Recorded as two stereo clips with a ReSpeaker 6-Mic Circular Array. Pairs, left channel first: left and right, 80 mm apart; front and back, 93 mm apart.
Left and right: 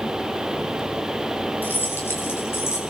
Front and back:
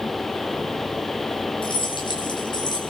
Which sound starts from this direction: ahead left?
Keys jangling, at 1.6 s.